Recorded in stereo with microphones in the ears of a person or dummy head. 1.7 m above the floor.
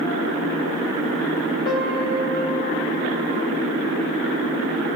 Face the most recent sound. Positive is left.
turn(degrees=30)  # may be behind; listen again after turning